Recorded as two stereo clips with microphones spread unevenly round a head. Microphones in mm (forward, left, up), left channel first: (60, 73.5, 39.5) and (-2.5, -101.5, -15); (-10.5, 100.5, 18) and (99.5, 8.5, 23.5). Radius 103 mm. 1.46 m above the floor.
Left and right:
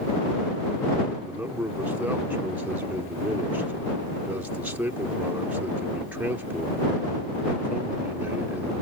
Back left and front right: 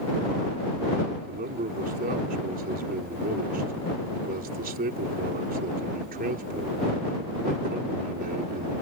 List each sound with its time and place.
1.3 s a man speaking: 25° right